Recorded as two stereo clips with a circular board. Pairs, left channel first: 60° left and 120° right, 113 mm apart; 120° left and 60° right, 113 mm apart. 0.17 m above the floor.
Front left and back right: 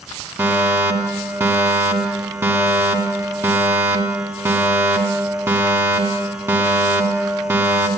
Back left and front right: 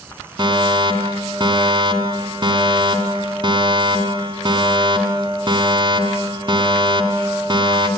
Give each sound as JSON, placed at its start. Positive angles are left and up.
{"t": 0.4, "sound": "a fire alarm", "azimuth_deg": -65, "distance_m": 2.5}